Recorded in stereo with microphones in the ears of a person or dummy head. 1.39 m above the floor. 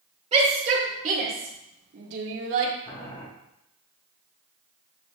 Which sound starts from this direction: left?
Boiling, at 2.9 s.